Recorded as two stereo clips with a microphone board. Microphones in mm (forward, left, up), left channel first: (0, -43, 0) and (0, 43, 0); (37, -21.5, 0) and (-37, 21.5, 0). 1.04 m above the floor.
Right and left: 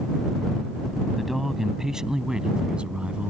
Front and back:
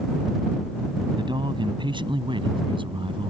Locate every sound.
1.2 s a man speaking: 175° left; by 3.3 s 165° left